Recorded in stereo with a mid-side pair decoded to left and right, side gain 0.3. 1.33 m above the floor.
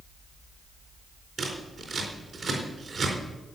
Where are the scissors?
60° right, 4 m.